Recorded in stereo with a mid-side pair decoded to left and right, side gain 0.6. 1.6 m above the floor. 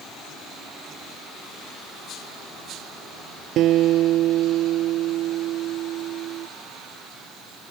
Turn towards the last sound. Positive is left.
turn(degrees=-55)